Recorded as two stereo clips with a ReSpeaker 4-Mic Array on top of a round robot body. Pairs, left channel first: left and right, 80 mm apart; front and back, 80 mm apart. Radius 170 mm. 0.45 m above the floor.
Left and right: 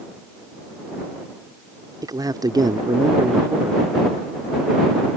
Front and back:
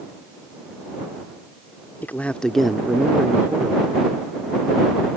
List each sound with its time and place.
2.0 s a man speaking: 60° right; by 3.9 s 135° right